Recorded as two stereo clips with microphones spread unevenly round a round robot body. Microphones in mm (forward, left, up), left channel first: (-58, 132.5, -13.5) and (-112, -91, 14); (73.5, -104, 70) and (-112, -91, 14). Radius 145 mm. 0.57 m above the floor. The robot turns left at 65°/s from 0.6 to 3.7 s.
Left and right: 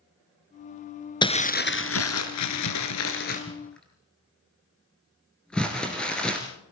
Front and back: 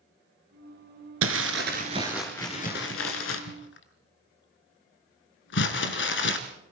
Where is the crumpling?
150° left, 1.7 m; by 6.4 s 10° right, 1.7 m.